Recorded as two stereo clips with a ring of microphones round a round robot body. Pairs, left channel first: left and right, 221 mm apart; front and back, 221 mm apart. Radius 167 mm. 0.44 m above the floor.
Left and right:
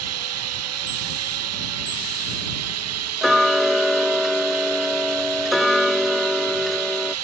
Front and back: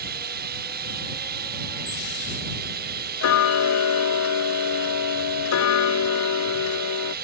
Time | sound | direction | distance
0.0 | running water | 120° right | ?
3.2 | ticking | straight ahead | ?